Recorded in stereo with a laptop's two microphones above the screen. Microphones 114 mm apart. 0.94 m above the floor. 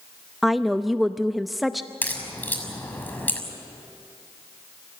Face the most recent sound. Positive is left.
turn(degrees=15)  # may be behind; listen again after turning